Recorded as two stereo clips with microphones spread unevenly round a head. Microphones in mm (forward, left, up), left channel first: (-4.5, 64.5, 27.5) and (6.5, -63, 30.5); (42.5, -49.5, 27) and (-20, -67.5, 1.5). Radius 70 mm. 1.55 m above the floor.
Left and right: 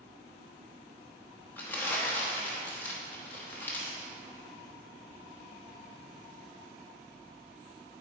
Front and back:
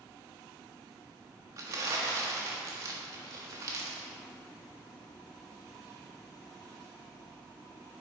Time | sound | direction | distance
1.6 | crumpling | 155° left | 1.0 m